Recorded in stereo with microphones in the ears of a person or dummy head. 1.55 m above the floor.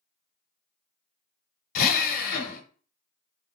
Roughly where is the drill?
Left.